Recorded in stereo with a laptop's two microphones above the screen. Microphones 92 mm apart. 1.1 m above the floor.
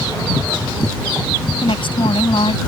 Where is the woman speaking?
70° left (ahead or behind).